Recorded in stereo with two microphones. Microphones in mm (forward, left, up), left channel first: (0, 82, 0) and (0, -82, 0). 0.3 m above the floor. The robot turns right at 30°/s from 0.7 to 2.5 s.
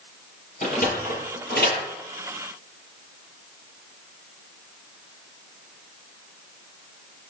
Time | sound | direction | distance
0.6 | a sliding door | 50° left (ahead or behind) | 5.5 m